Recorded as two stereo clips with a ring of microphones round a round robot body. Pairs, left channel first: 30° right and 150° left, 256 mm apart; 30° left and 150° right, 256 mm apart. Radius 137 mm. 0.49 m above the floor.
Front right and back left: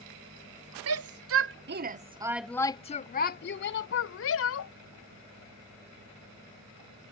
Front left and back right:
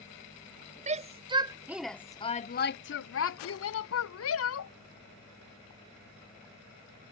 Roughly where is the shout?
Behind left.